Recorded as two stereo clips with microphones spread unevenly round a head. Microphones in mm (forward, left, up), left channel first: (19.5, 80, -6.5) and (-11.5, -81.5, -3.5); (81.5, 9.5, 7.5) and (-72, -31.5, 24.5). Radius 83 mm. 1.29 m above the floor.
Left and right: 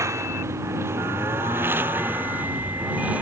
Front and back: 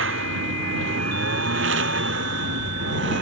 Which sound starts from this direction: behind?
A lawn mower, at 0.0 s.